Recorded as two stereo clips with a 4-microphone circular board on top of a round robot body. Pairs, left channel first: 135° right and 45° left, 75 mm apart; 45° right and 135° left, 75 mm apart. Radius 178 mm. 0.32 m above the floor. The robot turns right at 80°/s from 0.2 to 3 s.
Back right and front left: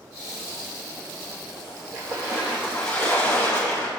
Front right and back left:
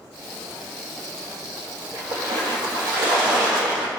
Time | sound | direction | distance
1.9 | a splash | 75° left | 3 m